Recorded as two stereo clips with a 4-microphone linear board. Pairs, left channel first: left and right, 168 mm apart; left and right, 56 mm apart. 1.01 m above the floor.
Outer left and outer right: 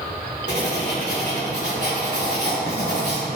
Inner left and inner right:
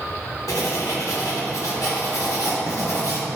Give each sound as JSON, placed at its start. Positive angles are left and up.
{"t": 0.5, "sound": "writing", "side_deg": 85, "distance_m": 2.5}